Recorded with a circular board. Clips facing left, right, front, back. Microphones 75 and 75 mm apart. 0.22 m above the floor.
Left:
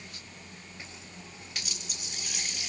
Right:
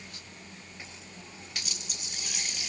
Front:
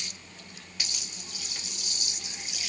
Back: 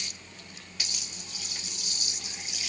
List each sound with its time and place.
Only background noise.